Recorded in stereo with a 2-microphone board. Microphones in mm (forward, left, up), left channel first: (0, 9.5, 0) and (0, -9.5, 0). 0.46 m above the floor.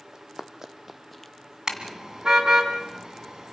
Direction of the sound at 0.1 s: 40° right (ahead or behind).